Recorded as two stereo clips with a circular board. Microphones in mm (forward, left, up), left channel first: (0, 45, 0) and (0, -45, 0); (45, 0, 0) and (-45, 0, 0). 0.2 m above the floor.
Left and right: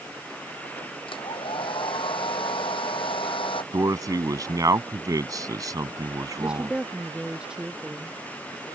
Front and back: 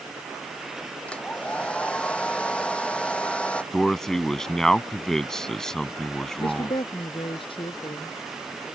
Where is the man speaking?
80° right.